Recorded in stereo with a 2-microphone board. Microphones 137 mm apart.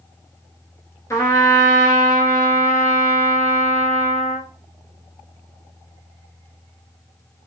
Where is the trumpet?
25° left (ahead or behind), 0.8 m.